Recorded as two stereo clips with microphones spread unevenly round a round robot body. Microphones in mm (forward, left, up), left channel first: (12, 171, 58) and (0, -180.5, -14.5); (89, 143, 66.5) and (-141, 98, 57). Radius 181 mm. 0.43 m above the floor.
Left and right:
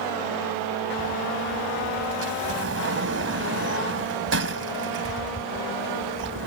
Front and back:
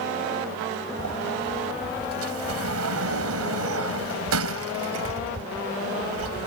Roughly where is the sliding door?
Behind right.